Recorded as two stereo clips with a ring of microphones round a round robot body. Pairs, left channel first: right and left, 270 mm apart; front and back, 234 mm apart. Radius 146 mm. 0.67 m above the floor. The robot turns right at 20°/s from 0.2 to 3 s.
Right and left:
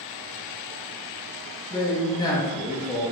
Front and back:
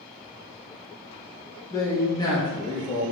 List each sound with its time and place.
1.7 s a man speaking: 50° right, 0.5 m; by 3.0 s 25° right, 0.5 m